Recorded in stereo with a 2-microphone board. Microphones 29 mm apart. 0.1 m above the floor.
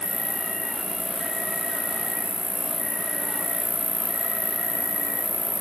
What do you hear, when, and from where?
0.0 s an insect: 75° left (ahead or behind), 4.5 m